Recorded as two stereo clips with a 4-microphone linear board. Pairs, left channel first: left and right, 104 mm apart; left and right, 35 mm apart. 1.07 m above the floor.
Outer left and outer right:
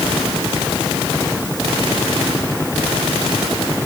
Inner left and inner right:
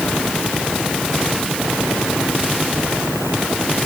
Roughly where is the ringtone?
I don't hear a ringtone.